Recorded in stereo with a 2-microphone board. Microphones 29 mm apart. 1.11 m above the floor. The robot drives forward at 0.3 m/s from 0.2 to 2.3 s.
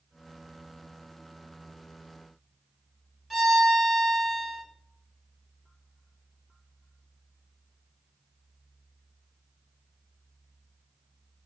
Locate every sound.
3.3 s a violin: 15° right (ahead or behind), 0.8 m